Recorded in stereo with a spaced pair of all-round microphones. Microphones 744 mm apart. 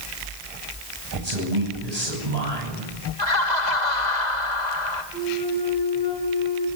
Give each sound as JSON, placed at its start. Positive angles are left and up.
{"t": 1.1, "sound": "a man speaking", "side_deg": -55, "distance_m": 10.0}
{"t": 3.2, "sound": "laughter", "side_deg": 65, "distance_m": 2.5}
{"t": 5.1, "sound": "a flute", "side_deg": -15, "distance_m": 9.5}